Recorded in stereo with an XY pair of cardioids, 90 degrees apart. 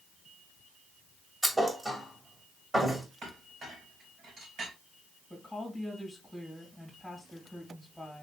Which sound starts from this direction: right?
A clink, at 3.2 s.